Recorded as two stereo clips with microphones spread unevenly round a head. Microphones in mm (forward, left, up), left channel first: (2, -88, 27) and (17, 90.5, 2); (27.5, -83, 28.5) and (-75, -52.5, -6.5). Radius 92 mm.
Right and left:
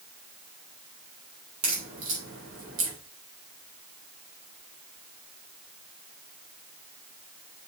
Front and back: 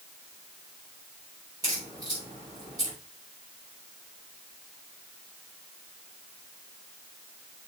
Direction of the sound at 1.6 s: 95° left.